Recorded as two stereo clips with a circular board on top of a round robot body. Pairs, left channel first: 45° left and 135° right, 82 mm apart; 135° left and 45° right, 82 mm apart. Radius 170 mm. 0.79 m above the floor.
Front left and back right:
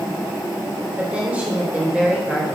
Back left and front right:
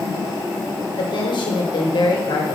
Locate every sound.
1.0 s a woman speaking: 150° left, 3 m